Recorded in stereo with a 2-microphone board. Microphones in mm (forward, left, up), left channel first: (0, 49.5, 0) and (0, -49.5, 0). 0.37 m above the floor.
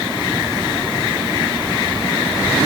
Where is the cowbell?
No cowbell in this recording.